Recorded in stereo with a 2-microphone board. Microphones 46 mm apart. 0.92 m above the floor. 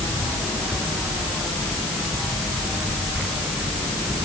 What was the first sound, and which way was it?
Only background noise.